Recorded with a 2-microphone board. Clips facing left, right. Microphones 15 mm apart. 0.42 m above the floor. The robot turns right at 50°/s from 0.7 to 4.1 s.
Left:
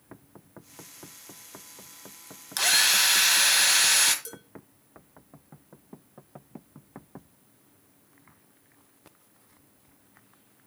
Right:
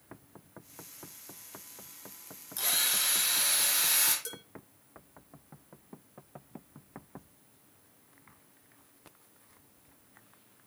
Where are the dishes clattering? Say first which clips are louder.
Right 1 dB; 20° right (ahead or behind), 4.5 m.